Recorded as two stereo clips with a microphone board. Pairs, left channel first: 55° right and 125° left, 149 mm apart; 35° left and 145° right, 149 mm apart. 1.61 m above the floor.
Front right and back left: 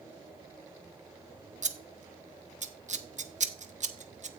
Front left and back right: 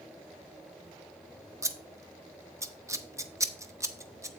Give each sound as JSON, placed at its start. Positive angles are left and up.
{"t": 1.6, "sound": "scissors", "azimuth_deg": 145, "distance_m": 0.7}